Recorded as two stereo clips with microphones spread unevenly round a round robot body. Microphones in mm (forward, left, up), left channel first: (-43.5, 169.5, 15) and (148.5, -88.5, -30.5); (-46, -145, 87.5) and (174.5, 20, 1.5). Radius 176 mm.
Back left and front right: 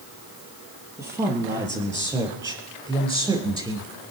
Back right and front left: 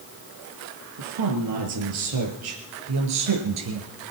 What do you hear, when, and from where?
1.0 s a woman speaking: 30° left, 6 m; by 3.9 s 25° left, 4.5 m